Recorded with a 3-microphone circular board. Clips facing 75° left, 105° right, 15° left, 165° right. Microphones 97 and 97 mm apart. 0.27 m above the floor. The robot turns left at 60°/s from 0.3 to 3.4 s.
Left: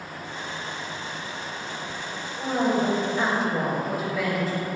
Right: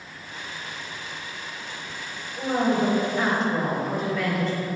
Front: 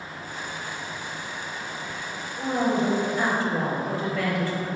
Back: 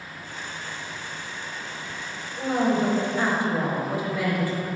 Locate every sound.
2.4 s a woman speaking: 145° right, 0.9 m; by 4.7 s 150° left, 0.9 m